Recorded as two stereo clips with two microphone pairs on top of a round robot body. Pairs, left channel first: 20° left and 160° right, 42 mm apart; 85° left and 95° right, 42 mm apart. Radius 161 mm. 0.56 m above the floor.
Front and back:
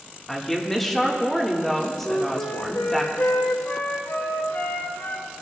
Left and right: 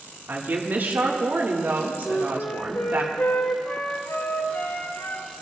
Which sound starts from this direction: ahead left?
A flute, at 2.0 s.